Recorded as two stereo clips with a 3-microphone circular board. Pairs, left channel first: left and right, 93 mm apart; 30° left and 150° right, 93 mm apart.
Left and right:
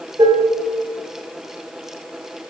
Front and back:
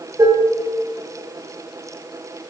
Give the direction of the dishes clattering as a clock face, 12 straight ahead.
4 o'clock.